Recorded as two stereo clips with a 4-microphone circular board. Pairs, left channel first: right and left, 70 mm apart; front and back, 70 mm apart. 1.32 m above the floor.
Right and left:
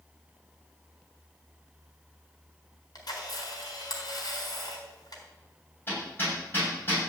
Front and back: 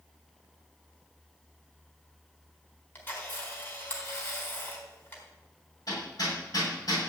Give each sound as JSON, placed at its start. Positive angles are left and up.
{"t": 3.0, "sound": "a camera shutter", "azimuth_deg": -60, "distance_m": 4.0}
{"t": 5.9, "sound": "hammering", "azimuth_deg": -30, "distance_m": 7.5}